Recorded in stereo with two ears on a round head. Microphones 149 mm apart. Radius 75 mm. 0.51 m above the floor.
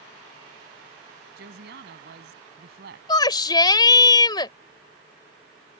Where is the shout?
25° left (ahead or behind).